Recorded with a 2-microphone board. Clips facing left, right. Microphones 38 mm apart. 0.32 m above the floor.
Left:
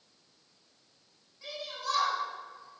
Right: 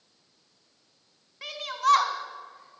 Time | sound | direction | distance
1.4 | a shout | 70° right (ahead or behind) | 3 m